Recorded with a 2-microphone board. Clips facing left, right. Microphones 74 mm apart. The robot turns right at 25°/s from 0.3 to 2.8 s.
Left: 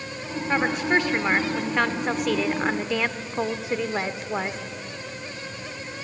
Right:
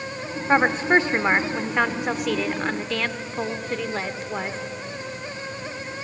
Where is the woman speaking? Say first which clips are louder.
Right 4 dB; 45° right, 1.1 m; by 4.6 s 15° left, 1.1 m.